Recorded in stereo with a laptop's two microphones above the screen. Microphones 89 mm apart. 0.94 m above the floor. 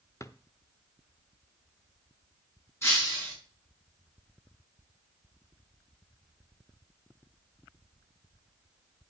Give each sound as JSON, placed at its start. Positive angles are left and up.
{"t": 0.2, "sound": "a drawer", "side_deg": 35, "distance_m": 0.6}
{"t": 2.8, "sound": "breaking glass", "side_deg": 30, "distance_m": 6.0}